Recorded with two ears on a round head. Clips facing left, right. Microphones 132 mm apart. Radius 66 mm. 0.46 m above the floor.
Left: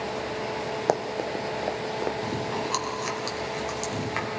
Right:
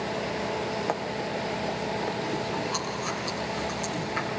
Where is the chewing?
75° left (ahead or behind), 3.5 m.